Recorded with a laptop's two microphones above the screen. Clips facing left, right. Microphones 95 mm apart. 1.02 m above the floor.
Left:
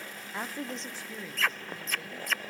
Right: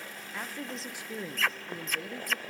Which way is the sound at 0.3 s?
25° left (ahead or behind).